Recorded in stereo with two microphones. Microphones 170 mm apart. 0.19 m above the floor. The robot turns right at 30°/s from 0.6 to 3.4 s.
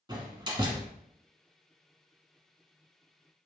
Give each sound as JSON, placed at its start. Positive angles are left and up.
{"t": 0.1, "sound": "a door slam", "side_deg": -25, "distance_m": 1.1}